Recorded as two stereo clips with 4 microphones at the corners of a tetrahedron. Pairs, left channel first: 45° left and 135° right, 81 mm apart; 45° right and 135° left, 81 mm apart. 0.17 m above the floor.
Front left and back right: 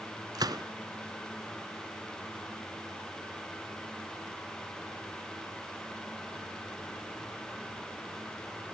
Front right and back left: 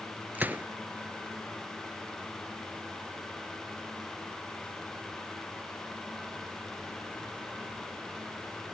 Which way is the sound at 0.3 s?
160° right.